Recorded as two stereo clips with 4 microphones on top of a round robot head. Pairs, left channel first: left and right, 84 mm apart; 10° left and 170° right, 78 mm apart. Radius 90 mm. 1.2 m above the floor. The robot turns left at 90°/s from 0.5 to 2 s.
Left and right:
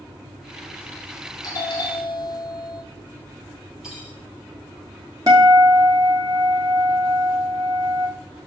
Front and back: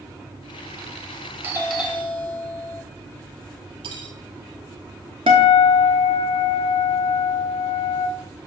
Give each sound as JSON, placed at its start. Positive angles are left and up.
{"t": 1.4, "sound": "a doorbell", "azimuth_deg": 130, "distance_m": 1.7}
{"t": 3.8, "sound": "cutlery clinking", "azimuth_deg": -175, "distance_m": 0.9}
{"t": 5.3, "sound": "a guitar", "azimuth_deg": -150, "distance_m": 0.9}